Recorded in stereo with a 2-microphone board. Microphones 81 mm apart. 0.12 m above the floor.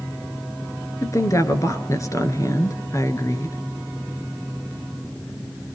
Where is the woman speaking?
40° left (ahead or behind), 1.6 m.